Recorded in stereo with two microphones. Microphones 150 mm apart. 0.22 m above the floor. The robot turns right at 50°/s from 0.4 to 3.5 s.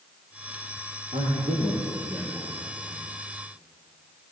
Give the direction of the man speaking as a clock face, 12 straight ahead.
1 o'clock.